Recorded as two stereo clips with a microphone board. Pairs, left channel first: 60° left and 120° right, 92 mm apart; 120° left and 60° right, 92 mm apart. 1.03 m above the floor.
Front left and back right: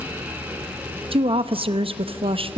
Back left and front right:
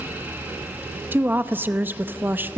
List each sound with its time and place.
1.1 s a woman speaking: 130° right, 0.8 m